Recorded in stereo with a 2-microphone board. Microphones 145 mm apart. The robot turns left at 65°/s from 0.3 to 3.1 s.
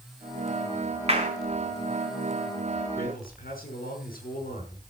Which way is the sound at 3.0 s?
75° left (ahead or behind).